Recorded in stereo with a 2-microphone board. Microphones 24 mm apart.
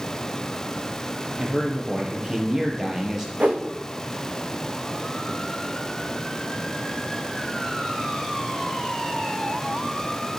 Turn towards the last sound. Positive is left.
turn(degrees=-65)  # may be behind; listen again after turning